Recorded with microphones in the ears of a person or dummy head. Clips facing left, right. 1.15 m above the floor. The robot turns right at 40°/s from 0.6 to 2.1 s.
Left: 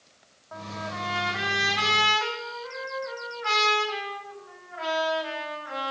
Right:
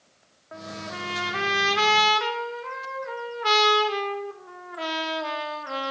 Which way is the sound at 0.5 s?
150° right.